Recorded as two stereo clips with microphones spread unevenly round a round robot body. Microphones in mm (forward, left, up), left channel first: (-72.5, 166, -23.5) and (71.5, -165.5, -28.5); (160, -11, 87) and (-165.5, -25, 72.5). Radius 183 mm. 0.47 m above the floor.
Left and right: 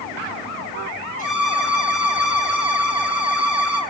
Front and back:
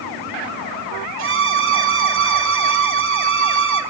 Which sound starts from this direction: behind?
A violin, at 1.2 s.